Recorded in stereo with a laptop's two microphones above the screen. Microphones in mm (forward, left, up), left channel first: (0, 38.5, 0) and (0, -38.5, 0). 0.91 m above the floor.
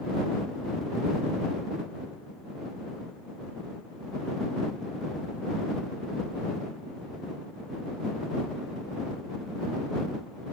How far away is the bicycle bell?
I don't hear a bicycle bell.